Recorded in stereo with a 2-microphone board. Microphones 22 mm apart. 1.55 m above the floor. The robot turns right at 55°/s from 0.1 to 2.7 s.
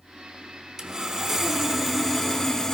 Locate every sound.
0.8 s sawing: 20° right (ahead or behind), 1.3 m; by 2.8 s 25° left (ahead or behind), 1.3 m